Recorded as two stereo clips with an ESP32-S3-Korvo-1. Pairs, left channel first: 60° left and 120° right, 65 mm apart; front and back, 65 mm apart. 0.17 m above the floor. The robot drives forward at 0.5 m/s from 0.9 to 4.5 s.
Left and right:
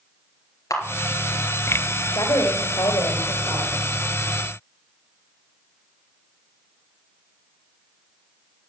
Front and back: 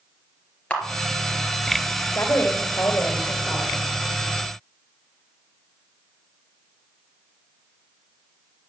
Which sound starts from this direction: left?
A camera shutter, at 0.7 s.